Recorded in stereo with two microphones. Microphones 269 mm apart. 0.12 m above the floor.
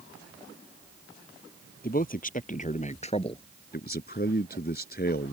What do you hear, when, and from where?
1.8 s a man speaking: 35° left (ahead or behind); by 3.4 s 20° left (ahead or behind)
3.7 s a man speaking: 35° left (ahead or behind)